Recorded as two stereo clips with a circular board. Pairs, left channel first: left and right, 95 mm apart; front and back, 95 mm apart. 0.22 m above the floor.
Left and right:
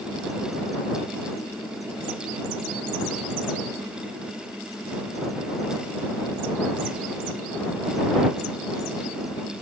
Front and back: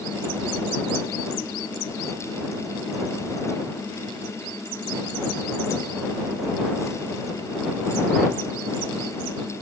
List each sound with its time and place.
Only background noise.